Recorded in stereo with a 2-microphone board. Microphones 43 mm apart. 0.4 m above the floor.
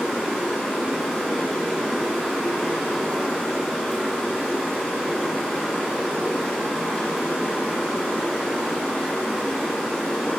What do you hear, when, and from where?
0.0 s running water: 5° right (ahead or behind), 1.4 m